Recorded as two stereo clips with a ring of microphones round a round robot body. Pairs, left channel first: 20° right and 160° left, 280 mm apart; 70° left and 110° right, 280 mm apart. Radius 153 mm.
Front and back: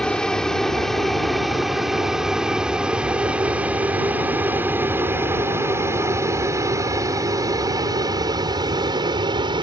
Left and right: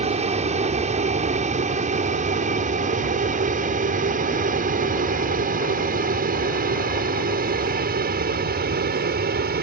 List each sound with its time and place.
0.0 s an aircraft: 105° right; by 9.6 s 140° right